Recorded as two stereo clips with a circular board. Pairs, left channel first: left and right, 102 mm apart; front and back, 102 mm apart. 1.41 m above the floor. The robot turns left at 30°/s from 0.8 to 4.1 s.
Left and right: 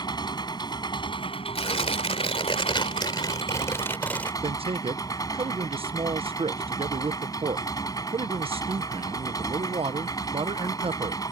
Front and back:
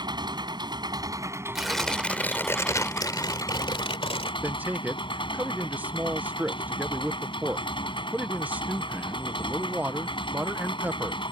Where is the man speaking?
105° right.